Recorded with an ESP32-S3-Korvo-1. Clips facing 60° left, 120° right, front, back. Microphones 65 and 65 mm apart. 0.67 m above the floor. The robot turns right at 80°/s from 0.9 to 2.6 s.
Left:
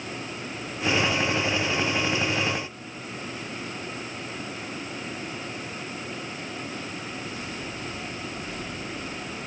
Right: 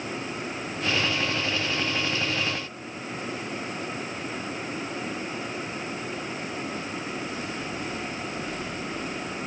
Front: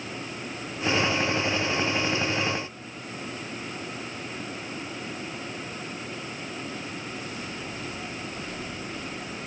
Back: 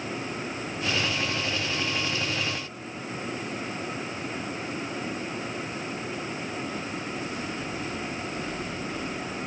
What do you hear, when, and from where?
Only background noise.